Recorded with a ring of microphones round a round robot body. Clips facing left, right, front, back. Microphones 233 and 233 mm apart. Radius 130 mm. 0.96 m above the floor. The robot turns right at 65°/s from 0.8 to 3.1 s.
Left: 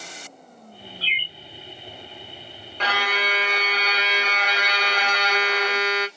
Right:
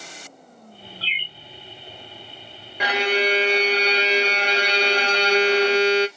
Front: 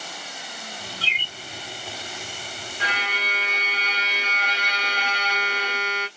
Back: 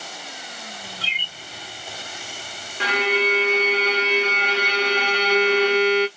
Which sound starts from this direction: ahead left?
A bird, at 1.0 s.